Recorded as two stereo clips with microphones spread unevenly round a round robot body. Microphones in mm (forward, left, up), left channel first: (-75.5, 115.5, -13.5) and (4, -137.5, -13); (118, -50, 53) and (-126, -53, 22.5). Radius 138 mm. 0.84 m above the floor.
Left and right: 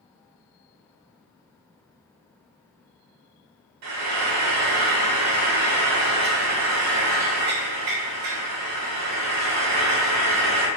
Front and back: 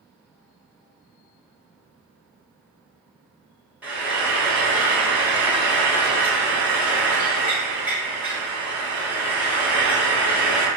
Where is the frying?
95° right, 0.7 m.